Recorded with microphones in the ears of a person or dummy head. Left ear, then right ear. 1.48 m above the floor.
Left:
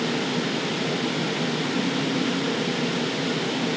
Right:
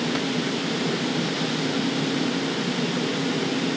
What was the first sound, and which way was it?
Only background noise.